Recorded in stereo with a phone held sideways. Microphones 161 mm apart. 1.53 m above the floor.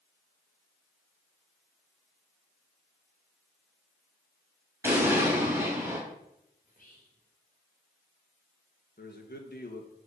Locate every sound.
4.8 s an explosion: 15° right (ahead or behind), 3.5 m
6.6 s whispering: 60° left (ahead or behind), 3 m
9.0 s a man speaking: 80° left, 2 m